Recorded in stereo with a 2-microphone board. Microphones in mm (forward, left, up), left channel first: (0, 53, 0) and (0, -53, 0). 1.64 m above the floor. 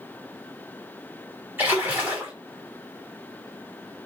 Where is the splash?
20° right (ahead or behind), 1.3 m.